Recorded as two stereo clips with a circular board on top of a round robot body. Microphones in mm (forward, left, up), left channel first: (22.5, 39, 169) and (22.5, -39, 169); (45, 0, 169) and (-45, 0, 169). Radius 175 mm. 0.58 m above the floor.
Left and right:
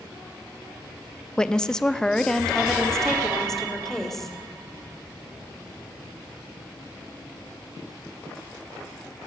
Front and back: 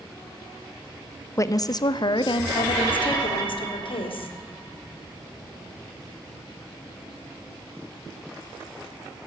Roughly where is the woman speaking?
Ahead.